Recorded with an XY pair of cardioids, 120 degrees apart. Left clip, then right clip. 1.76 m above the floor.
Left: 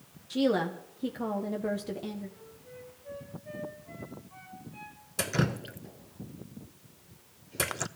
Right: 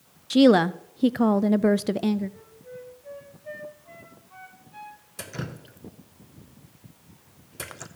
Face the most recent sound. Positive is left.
turn(degrees=40)